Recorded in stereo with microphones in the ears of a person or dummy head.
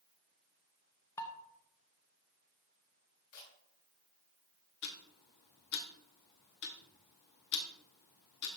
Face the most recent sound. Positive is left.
turn(degrees=50)  # may be behind; listen again after turning